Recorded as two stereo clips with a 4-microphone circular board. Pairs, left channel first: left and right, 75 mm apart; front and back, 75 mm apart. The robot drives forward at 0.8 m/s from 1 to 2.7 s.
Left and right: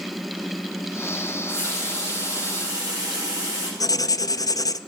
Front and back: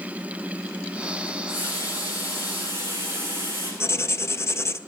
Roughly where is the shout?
No shout in this recording.